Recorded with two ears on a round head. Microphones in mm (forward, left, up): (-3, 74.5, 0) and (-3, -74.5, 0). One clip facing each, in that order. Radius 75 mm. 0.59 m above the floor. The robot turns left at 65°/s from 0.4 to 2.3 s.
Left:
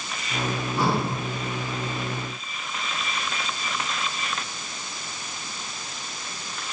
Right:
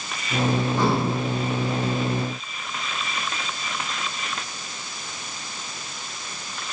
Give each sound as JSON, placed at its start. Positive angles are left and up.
{"t": 0.8, "sound": "breathing", "side_deg": 10, "distance_m": 2.0}